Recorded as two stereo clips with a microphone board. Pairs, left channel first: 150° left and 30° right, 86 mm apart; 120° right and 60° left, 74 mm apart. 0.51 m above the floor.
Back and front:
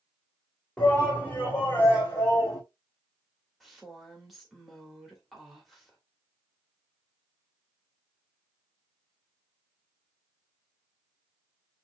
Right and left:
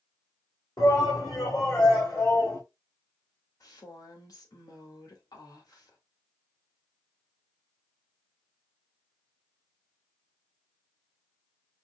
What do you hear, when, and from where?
0.8 s a shout: 135° right, 2 m; by 2.6 s 160° right, 3 m
3.6 s a woman speaking: 120° right, 1.7 m